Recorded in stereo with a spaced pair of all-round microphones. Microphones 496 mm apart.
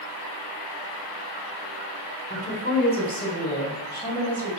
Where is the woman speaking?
15° left (ahead or behind), 3.5 m; by 4.5 s 5° left (ahead or behind), 4.5 m.